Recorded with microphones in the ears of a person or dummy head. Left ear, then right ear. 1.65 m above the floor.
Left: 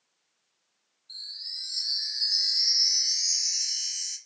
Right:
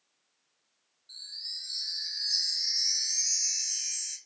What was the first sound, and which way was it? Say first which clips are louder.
A chime: left 2 dB; 30° right (ahead or behind).